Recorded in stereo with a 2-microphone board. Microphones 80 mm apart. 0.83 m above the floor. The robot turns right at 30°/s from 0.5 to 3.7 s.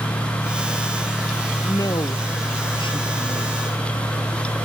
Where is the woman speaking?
50° left; by 3.5 s 105° left.